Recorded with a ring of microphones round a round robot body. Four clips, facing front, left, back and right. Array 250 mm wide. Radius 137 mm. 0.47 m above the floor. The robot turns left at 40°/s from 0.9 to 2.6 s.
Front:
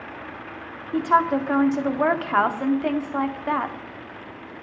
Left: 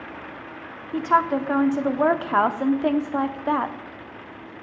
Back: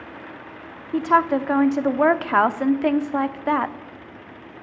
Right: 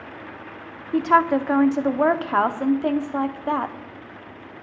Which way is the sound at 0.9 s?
120° right.